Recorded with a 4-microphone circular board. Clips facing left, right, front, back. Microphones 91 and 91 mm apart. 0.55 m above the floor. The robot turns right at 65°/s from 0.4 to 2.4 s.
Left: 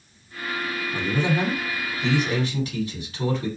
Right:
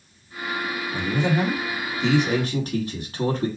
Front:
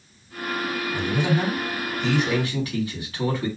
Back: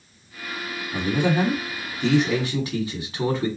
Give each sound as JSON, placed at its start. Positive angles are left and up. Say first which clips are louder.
{"t": 0.9, "sound": "a man speaking", "louder": "right 1 dB, back 3 dB", "azimuth_deg": 145, "distance_m": 1.5}